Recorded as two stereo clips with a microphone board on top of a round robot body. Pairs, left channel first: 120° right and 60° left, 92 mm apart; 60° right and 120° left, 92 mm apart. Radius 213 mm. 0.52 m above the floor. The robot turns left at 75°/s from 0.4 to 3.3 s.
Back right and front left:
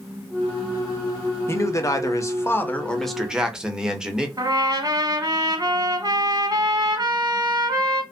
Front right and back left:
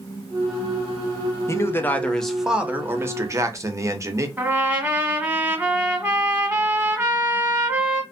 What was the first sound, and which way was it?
A man speaking, 85° right.